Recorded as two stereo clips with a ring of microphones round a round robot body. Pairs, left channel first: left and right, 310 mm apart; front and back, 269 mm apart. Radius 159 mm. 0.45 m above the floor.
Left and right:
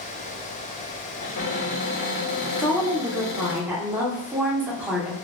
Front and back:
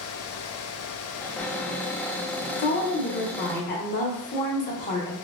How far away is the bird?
No bird in this recording.